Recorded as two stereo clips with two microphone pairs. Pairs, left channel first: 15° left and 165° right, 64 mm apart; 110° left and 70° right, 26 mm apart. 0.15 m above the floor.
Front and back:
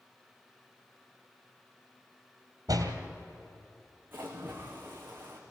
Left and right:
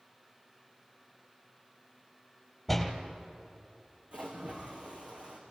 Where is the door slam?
165° right, 2.5 m.